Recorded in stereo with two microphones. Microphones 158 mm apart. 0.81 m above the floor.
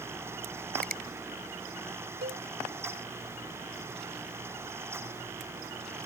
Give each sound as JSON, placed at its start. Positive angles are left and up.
{"t": 0.8, "sound": "a finger snap", "side_deg": -60}
{"t": 2.2, "sound": "a cowbell", "side_deg": -80}